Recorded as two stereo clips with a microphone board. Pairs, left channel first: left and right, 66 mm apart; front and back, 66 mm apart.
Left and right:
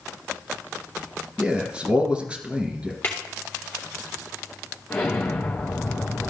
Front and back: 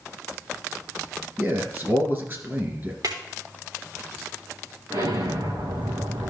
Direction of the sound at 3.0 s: 155° left.